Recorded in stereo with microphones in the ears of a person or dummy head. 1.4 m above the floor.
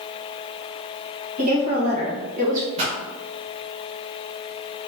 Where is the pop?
30° right (ahead or behind), 1.1 m.